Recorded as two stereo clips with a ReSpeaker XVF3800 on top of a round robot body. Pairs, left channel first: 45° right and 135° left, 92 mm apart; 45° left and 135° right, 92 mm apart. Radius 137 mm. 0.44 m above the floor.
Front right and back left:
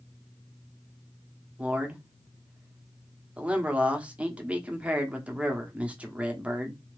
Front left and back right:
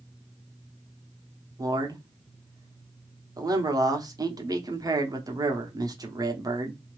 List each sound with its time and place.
1.6 s a man speaking: 155° right, 1.2 m